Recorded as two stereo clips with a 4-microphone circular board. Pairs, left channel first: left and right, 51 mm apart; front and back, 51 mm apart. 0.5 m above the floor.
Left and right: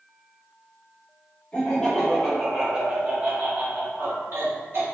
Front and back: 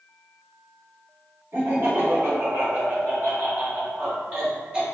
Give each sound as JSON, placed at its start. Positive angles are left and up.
{"t": 1.5, "sound": "laughter", "azimuth_deg": 155, "distance_m": 1.9}